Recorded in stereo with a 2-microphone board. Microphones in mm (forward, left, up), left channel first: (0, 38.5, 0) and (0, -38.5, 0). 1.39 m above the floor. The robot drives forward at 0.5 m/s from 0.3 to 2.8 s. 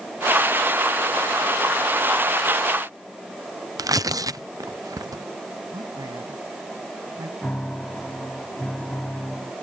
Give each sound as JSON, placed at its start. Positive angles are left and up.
{"t": 3.8, "sound": "tearing paper", "side_deg": -50}
{"t": 5.7, "sound": "a man speaking", "side_deg": -60}
{"t": 7.4, "sound": "a piano", "side_deg": 15}